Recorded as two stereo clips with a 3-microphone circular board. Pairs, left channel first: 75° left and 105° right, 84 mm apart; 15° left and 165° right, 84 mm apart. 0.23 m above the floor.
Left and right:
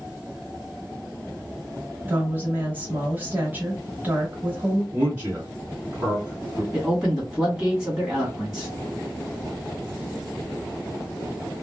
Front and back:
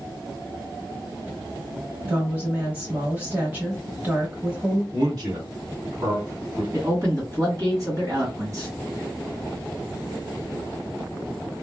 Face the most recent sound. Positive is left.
turn(degrees=175)